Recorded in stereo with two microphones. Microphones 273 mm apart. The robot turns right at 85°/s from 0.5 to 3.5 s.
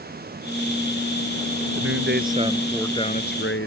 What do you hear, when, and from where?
1.8 s a man speaking: 80° right; by 3.7 s 65° left